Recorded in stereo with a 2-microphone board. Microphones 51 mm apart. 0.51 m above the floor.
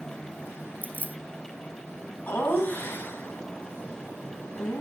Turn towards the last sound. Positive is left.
turn(degrees=45)  # may be behind; listen again after turning